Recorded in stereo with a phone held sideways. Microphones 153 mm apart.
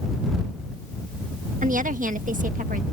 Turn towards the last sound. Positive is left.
turn(degrees=-60)  # may be behind; listen again after turning